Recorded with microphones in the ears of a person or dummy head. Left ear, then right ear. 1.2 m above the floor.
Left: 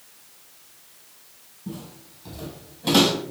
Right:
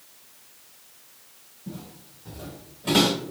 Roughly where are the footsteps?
Left.